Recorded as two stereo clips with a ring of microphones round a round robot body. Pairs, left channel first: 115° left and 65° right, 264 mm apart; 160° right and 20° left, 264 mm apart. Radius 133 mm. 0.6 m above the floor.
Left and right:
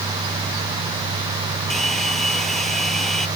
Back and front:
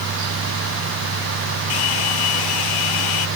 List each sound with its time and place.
1.7 s a hair dryer: 160° right